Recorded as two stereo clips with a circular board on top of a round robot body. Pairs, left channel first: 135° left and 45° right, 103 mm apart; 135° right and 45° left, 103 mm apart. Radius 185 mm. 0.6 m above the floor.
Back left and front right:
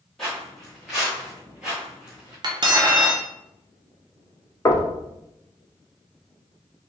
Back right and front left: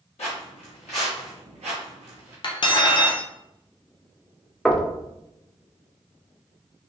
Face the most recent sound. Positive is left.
turn(degrees=140)